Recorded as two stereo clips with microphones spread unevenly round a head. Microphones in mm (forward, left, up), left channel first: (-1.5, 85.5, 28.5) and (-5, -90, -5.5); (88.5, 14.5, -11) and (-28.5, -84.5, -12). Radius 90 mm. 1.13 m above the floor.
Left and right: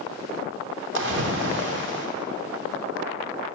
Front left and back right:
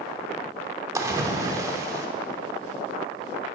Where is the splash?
75° right, 1.0 m.